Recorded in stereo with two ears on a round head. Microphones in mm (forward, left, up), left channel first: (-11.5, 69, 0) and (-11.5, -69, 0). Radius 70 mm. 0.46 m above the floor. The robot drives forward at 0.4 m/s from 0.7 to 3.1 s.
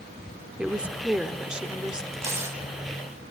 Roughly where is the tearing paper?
Centre.